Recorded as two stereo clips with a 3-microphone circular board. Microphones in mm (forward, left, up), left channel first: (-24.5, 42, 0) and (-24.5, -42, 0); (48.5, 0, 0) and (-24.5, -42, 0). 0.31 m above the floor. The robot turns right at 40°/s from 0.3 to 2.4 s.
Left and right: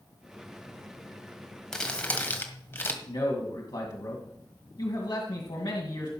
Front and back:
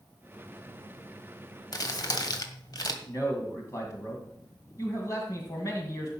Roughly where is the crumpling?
Ahead.